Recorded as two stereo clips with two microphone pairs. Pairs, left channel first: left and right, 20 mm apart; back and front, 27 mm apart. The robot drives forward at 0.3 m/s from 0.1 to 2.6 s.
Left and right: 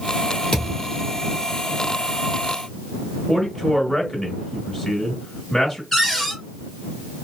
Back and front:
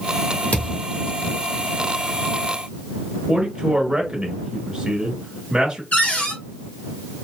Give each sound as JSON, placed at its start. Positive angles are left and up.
{"t": 0.5, "sound": "a thud", "azimuth_deg": 130, "distance_m": 1.6}
{"t": 3.3, "sound": "a man speaking", "azimuth_deg": 50, "distance_m": 1.1}
{"t": 5.9, "sound": "a cupboard door", "azimuth_deg": 160, "distance_m": 1.7}